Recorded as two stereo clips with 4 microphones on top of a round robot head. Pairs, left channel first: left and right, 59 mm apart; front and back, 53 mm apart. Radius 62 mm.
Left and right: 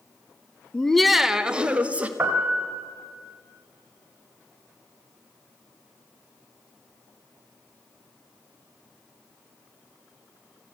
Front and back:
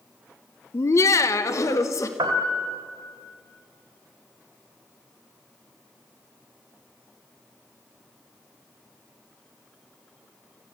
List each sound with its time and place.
0.7 s laughter: 20° left, 0.8 m; by 2.1 s 25° right, 2.0 m
2.2 s a piano: 160° right, 2.5 m